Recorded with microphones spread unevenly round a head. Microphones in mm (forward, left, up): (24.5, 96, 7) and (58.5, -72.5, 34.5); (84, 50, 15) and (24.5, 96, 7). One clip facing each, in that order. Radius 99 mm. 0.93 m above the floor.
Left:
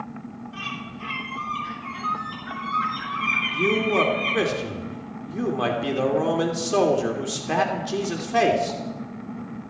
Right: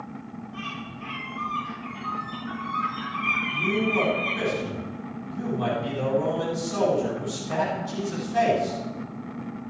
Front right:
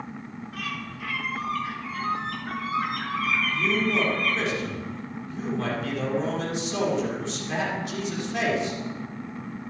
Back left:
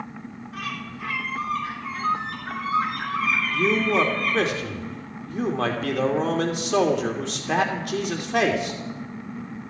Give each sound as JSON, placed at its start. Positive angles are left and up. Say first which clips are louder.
{"t": 0.5, "sound": "a bird", "louder": "left 1 dB, back left 2 dB", "azimuth_deg": 85, "distance_m": 6.5}
{"t": 3.5, "sound": "a man speaking", "louder": "left 4 dB, back left 7 dB", "azimuth_deg": 120, "distance_m": 2.5}